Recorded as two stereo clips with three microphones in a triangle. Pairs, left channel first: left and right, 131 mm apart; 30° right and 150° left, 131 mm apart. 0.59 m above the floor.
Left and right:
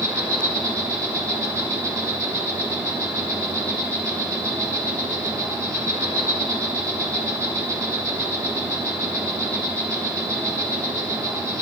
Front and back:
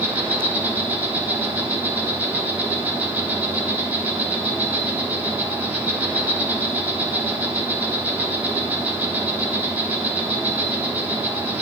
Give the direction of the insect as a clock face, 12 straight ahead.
5 o'clock.